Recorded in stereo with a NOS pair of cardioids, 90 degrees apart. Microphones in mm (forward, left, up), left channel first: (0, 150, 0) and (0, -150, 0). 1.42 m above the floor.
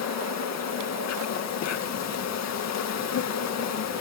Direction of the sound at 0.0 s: 60° left.